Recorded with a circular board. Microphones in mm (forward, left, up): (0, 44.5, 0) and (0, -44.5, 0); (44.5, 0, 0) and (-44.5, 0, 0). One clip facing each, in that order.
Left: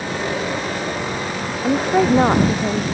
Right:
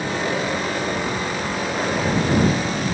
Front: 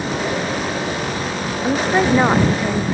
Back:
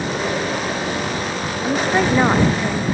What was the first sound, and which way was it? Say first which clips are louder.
A woman speaking: left 9 dB, front 1 dB; 80° left.